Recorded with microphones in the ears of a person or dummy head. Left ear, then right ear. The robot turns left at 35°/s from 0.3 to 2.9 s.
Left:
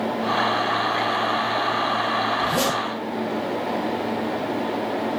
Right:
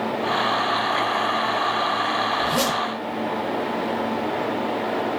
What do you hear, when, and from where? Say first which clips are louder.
2.4 s a zipper: even; centre (ahead or behind), 1.1 m; by 2.8 s 15° right (ahead or behind), 1.1 m